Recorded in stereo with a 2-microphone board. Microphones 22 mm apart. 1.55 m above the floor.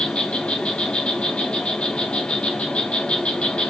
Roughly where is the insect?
Left.